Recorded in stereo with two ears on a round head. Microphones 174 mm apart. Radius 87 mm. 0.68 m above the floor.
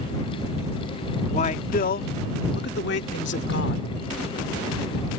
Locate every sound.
1.3 s a man speaking: 35° left (ahead or behind); by 3.9 s 65° left (ahead or behind)